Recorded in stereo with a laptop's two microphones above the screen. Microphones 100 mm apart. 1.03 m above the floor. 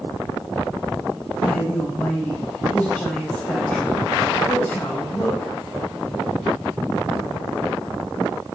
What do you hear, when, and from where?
1.4 s a woman speaking: 20° left (ahead or behind), 5 m